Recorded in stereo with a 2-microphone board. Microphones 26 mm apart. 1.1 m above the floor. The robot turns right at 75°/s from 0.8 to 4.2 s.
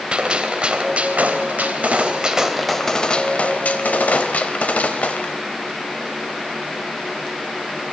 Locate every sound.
0.1 s a gunshot: 145° right, 3 m; by 5.4 s 110° left, 3 m